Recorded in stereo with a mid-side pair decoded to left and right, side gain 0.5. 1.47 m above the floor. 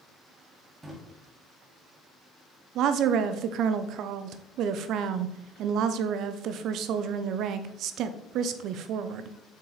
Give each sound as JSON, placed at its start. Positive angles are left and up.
{"t": 0.8, "sound": "a drawer", "azimuth_deg": -25, "distance_m": 1.8}
{"t": 2.8, "sound": "a woman speaking", "azimuth_deg": -70, "distance_m": 0.6}